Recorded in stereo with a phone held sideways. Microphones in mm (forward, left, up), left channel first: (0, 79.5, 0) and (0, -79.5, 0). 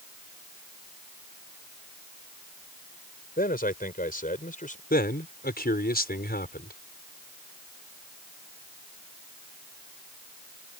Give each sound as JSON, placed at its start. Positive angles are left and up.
{"t": 3.4, "sound": "a man speaking", "side_deg": 70}
{"t": 4.9, "sound": "a man speaking", "side_deg": 75}